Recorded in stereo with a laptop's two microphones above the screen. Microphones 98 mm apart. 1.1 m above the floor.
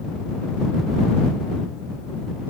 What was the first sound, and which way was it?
Only background noise.